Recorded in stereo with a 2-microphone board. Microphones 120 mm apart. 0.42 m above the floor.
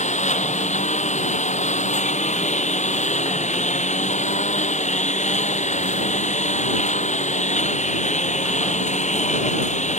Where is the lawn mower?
80° left.